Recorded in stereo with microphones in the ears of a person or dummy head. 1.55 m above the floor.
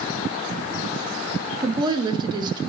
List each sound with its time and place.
1.6 s a woman speaking: 30° right (ahead or behind), 0.8 m